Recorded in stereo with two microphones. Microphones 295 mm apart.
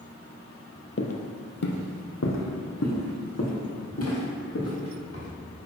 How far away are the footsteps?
About 0.7 m.